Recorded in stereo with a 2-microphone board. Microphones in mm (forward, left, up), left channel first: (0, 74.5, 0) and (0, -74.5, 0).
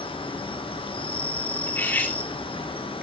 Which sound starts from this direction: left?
An insect, at 0.0 s.